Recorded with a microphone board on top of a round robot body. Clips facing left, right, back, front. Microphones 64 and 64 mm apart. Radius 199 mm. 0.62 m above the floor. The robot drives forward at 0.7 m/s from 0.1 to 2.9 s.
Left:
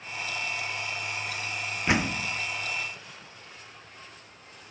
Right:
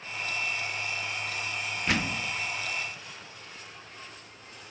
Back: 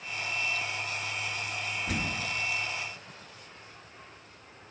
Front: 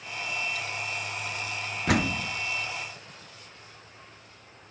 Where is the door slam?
20° left, 1.6 m; by 2.3 s 25° left, 1.4 m.